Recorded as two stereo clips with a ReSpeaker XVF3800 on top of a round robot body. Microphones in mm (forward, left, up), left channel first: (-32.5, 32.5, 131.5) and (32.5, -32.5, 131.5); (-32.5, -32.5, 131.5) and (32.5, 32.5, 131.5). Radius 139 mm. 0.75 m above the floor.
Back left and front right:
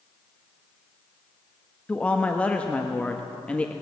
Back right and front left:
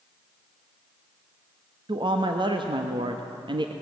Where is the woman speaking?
60° left, 1.3 m.